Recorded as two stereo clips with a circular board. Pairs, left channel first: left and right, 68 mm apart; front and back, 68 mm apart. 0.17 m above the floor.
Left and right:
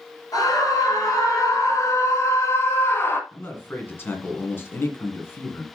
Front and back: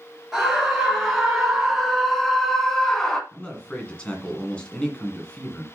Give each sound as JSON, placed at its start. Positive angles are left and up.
{"t": 0.3, "sound": "a scream", "azimuth_deg": 95, "distance_m": 3.0}
{"t": 3.3, "sound": "a man speaking", "azimuth_deg": 65, "distance_m": 1.8}